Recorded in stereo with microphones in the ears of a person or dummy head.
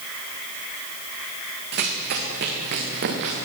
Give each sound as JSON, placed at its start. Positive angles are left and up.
{"t": 1.7, "sound": "running footsteps", "side_deg": -60, "distance_m": 5.0}